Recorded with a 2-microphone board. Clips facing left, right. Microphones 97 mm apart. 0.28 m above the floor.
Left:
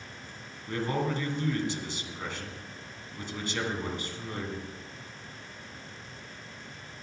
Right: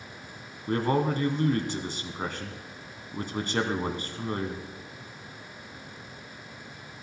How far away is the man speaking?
About 2.0 m.